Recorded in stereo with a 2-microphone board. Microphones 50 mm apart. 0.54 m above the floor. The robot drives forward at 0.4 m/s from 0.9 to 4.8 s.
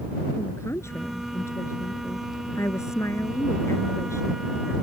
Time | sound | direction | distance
0.3 | a woman speaking | 65° left (ahead or behind) | ?